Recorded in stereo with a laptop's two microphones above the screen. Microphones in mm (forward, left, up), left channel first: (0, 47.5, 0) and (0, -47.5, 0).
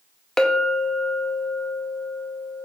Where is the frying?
No frying in this recording.